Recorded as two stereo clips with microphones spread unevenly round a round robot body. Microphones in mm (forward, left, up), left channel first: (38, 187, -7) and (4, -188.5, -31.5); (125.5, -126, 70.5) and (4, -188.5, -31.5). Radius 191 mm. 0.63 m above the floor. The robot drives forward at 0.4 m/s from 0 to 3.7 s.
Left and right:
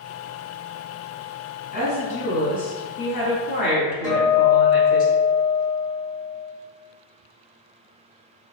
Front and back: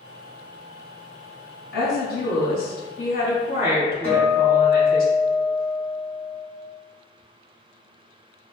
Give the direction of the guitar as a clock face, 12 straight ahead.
6 o'clock.